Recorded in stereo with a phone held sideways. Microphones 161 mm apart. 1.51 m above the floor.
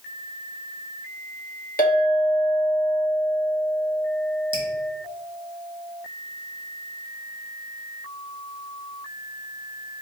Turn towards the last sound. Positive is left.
turn(degrees=-30)  # may be behind; listen again after turning